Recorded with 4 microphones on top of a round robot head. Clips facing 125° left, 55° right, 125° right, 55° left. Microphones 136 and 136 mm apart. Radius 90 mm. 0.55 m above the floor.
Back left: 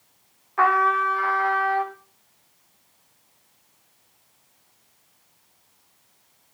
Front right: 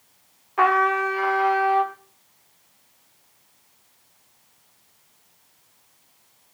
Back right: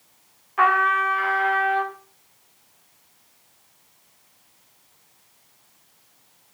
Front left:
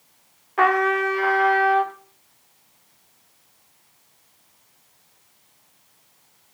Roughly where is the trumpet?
Ahead.